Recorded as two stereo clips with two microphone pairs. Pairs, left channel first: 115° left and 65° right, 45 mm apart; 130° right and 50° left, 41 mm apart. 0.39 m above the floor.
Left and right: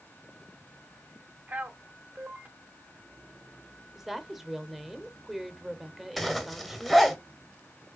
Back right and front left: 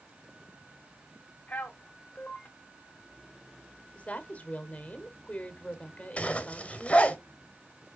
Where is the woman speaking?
140° right, 1.1 m.